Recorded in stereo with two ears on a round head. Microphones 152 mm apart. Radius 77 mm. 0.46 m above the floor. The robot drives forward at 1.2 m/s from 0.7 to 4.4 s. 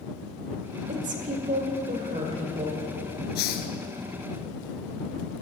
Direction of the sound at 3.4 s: 70° left (ahead or behind).